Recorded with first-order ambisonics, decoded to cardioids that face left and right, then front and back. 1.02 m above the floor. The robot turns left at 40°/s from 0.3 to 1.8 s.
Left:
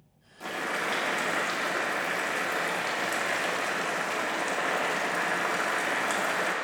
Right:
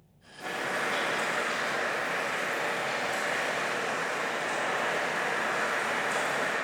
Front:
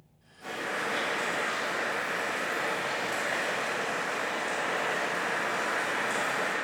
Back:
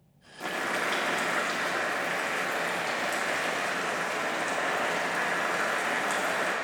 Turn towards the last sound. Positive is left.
turn(degrees=110)